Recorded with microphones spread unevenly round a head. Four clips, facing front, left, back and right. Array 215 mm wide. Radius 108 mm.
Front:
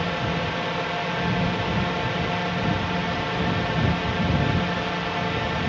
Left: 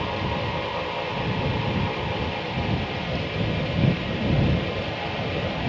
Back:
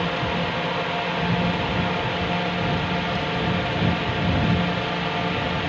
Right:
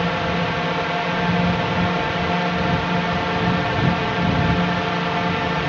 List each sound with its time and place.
0.0 s a drone: 90° right